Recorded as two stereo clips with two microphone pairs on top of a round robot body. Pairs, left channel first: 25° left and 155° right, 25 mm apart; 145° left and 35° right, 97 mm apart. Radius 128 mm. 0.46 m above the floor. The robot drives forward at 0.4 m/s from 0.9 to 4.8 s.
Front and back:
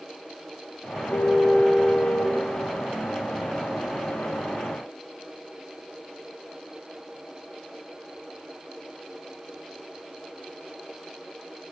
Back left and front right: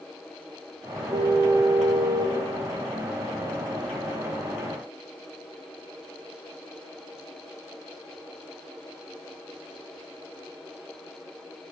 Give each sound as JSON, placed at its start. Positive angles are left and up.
{"t": 1.1, "sound": "a car horn", "azimuth_deg": 15, "distance_m": 7.5}